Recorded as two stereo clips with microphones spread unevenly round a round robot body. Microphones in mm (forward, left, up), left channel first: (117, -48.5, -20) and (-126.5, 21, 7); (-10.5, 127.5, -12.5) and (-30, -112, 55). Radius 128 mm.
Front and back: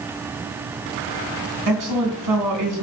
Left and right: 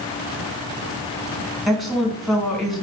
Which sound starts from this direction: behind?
A woman speaking, at 1.7 s.